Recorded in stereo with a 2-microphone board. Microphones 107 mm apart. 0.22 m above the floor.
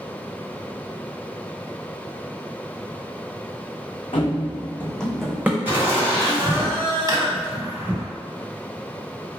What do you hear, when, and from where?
4.1 s running footsteps: 55° left (ahead or behind), 0.6 m; by 5.5 s 15° right (ahead or behind), 0.7 m
5.7 s laughter: 15° right (ahead or behind), 1.4 m
7.1 s a drawer: 40° right (ahead or behind), 0.5 m